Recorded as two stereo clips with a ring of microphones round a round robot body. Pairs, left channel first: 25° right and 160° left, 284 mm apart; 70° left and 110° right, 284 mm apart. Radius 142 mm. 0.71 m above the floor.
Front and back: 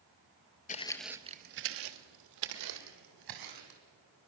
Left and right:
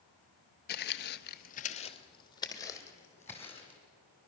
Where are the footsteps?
30° left, 0.8 m; by 3.8 s 150° left, 3 m.